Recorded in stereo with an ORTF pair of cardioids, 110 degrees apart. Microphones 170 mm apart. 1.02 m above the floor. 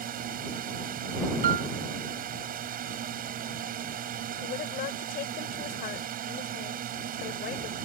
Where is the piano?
60° right.